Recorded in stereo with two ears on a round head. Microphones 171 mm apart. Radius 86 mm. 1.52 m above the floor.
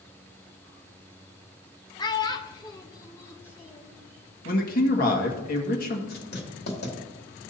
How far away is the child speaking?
About 0.8 m.